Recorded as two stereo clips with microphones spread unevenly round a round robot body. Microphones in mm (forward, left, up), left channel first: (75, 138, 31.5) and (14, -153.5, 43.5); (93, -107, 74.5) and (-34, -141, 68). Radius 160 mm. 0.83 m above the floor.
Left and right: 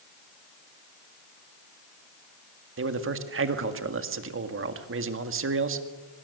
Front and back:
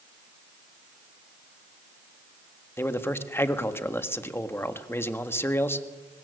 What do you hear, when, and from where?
2.8 s a man speaking: 60° right, 1.9 m